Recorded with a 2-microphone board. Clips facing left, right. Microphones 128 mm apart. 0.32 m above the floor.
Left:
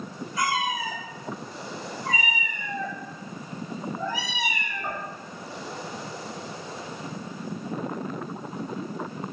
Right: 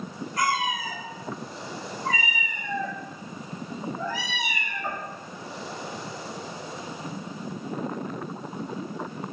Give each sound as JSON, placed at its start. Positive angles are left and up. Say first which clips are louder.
{"t": 0.4, "sound": "a cat meowing", "louder": "right 1 dB", "side_deg": -55, "distance_m": 2.0}